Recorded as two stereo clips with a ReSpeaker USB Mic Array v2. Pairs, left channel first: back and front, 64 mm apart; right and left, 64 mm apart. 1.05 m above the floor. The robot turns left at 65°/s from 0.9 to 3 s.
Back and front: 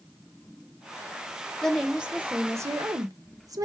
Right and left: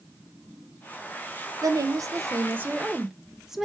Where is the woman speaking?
100° left, 0.9 m; by 3.7 s 10° left, 0.9 m.